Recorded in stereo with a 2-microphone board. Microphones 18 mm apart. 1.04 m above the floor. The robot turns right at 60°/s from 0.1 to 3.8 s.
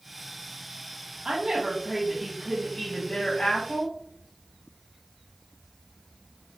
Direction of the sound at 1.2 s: 60° right.